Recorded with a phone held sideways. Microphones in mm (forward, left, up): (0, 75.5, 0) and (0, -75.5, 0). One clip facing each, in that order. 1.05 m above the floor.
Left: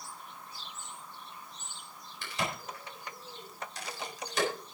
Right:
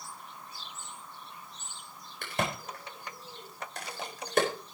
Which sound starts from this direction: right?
A crack, at 2.2 s.